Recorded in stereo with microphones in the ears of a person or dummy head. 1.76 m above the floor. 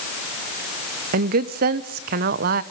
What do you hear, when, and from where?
1.1 s a woman speaking: 50° right (ahead or behind), 1.3 m